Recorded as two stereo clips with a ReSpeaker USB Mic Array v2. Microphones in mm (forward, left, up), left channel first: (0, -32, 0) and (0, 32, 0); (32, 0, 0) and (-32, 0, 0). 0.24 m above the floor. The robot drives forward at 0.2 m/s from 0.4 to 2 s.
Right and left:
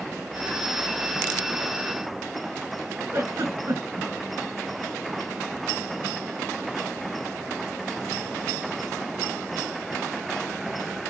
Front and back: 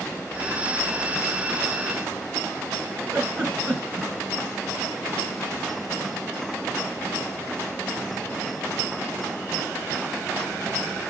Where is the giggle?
125° left, 3 m.